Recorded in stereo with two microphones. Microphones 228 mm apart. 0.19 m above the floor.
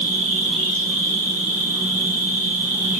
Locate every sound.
0.0 s an insect: 35° left (ahead or behind), 5 m